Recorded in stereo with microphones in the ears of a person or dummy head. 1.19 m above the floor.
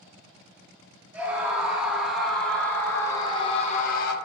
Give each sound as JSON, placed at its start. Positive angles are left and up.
{"t": 1.1, "sound": "a scream", "side_deg": -15, "distance_m": 2.5}